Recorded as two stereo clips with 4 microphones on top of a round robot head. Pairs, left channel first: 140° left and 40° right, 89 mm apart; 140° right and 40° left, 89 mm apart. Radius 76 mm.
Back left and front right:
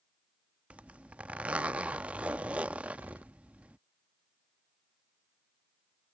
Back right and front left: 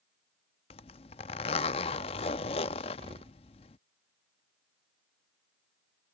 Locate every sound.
0.7 s a zipper: 120° right
3.0 s an explosion: 25° left